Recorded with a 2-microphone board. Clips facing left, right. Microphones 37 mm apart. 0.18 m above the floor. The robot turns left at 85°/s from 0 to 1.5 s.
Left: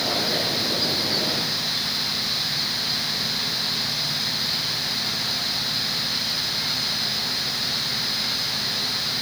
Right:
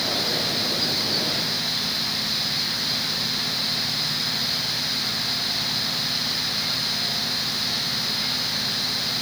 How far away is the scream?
I don't hear a scream.